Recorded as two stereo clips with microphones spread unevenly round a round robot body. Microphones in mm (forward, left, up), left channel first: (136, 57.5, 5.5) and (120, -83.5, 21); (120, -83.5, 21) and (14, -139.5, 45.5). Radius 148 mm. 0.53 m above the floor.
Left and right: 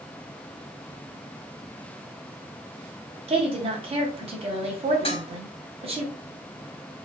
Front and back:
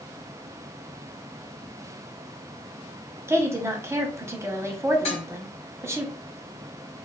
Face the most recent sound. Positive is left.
turn(degrees=40)